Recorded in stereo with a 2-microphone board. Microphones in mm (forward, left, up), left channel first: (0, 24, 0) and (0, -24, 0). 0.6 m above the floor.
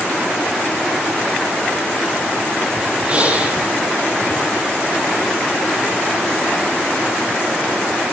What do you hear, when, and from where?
3.1 s breathing: 25° right (ahead or behind), 7 m